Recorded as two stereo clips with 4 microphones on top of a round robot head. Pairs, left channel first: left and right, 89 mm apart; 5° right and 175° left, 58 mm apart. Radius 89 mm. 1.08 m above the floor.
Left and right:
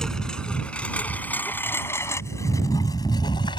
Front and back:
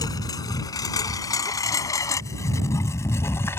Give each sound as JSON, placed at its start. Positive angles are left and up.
{"t": 0.0, "sound": "a lawn mower", "azimuth_deg": 5}